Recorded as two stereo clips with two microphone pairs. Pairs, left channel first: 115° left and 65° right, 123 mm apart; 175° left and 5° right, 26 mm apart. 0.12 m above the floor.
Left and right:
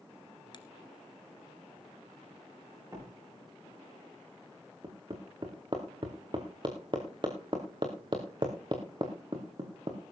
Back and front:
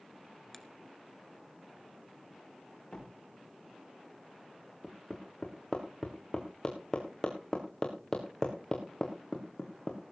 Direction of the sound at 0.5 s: 90° left.